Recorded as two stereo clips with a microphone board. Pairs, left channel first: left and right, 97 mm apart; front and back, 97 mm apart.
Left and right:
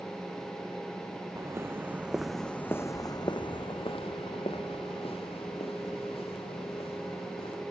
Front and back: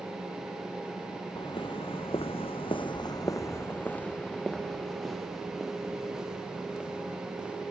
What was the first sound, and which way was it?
Footsteps, 30° right.